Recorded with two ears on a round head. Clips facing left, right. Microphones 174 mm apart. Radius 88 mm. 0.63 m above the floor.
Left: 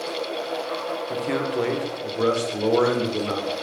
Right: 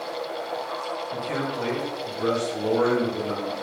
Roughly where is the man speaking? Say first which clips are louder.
Left 5 dB; left.